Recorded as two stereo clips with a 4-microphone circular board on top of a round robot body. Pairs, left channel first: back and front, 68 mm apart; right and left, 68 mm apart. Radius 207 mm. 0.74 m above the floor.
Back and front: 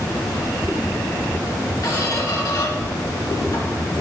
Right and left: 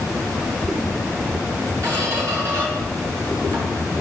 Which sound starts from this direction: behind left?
A squeak, at 1.8 s.